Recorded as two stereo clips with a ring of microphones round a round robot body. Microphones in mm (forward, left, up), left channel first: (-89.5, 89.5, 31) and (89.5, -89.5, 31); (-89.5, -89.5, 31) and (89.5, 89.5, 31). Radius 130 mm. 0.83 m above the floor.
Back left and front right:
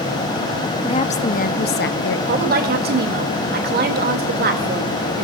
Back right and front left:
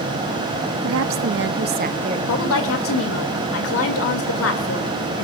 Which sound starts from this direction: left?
A woman speaking, at 0.8 s.